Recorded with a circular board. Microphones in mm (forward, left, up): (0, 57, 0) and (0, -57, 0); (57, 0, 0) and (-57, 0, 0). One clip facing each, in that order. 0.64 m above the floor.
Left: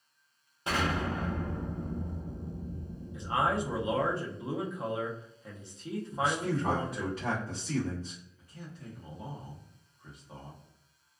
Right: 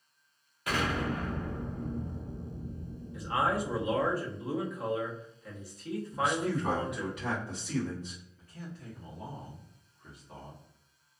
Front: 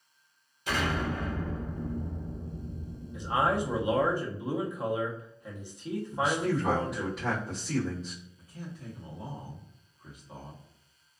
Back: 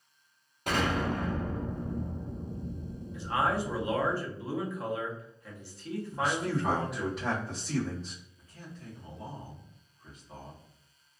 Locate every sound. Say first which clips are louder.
0.7 s an explosion: even, back 2 dB; 150° left, 1.0 m
3.1 s a man speaking: even, front 2 dB; 55° left, 0.8 m
6.1 s a man speaking: even, front 2 dB; 95° left, 1.2 m
8.4 s a man speaking: right 2 dB, front 4 dB; 50° left, 1.0 m